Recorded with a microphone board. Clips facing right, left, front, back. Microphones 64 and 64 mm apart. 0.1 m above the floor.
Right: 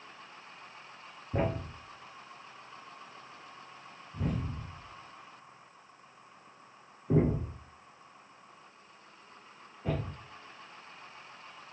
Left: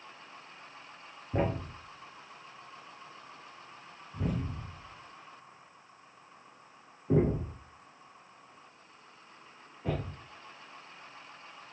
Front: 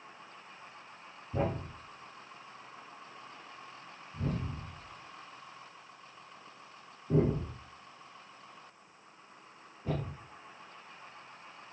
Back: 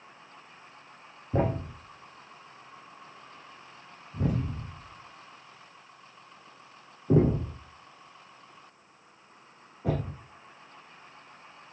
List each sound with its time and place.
1.3 s a thud: 175° left, 2.5 m